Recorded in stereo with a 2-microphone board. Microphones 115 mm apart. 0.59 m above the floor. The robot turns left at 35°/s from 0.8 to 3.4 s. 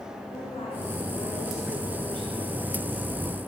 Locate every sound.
0.3 s a woman speaking: 55° left, 6.5 m; by 3.0 s 25° right, 6.5 m